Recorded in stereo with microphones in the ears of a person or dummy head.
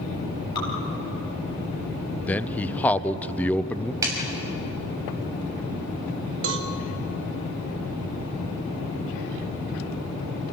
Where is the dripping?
25° left (ahead or behind), 4.5 m.